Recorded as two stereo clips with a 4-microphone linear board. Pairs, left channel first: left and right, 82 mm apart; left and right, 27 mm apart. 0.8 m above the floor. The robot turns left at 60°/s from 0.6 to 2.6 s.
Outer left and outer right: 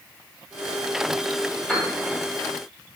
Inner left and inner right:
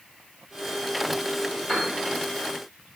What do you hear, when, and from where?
1.7 s a piano: 10° left (ahead or behind), 1.2 m; by 1.9 s 25° left (ahead or behind), 1.2 m